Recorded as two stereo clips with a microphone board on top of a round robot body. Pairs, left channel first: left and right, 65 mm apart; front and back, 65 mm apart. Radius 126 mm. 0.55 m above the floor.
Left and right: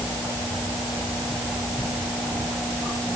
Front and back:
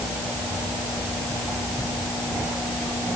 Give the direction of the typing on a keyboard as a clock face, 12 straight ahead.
No typing on a keyboard in this recording.